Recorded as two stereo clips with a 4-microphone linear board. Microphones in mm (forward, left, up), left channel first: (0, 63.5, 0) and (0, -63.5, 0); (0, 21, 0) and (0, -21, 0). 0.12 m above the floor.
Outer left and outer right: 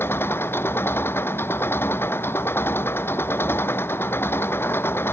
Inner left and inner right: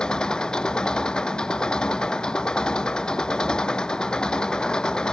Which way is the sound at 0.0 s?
20° left (ahead or behind).